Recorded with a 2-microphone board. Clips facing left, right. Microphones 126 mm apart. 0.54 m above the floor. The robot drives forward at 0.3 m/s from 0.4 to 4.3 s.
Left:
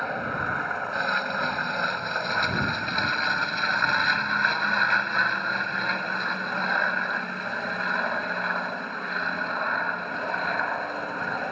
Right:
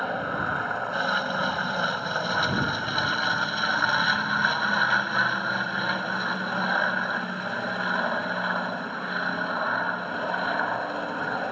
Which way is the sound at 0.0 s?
5° right (ahead or behind).